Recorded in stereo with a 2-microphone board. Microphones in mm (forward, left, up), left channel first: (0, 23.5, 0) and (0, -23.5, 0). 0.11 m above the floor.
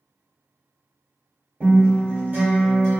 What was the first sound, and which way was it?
A guitar, 45° right (ahead or behind).